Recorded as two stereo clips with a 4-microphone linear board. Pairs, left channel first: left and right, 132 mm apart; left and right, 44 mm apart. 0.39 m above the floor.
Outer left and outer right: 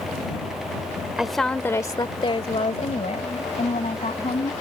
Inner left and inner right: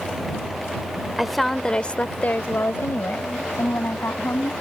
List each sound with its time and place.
1.2 s a woman speaking: 5° right (ahead or behind); by 4.5 s 60° left (ahead or behind)